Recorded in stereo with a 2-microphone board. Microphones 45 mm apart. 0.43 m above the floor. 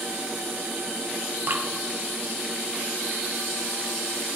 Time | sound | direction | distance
1.5 | dripping | 55° right (ahead or behind) | 1.3 m